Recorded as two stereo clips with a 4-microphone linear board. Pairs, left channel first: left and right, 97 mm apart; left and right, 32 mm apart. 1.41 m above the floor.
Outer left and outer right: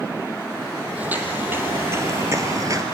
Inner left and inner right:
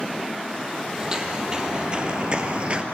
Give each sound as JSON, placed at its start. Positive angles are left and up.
{"t": 1.0, "sound": "footsteps", "side_deg": -15, "distance_m": 3.0}